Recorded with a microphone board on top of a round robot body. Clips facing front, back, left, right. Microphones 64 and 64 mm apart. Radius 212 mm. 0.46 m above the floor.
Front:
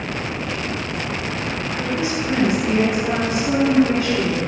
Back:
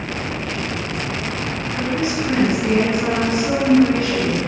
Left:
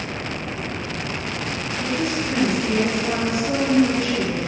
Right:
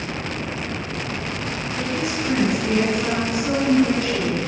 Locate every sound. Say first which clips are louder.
1.8 s a woman speaking: back 3 dB, left 1 dB; 120° right, 6.5 m; by 4.4 s 135° right, 6.5 m